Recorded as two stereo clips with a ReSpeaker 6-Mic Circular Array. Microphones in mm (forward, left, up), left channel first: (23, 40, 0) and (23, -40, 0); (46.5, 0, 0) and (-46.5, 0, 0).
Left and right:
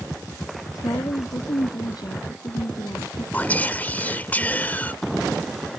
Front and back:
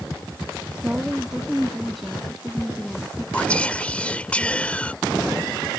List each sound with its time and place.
0.8 s a woman speaking: 105° left; by 3.2 s 80° left
3.3 s whispering: 55° left